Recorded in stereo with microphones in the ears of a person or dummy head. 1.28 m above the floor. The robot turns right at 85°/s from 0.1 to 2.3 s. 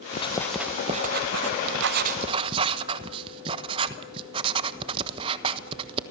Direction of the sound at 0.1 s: 30° left (ahead or behind).